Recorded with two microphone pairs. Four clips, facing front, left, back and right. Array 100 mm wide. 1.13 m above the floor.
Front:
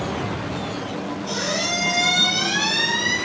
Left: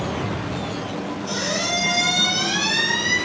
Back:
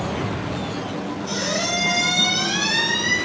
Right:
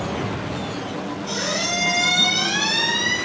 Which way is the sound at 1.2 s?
25° right.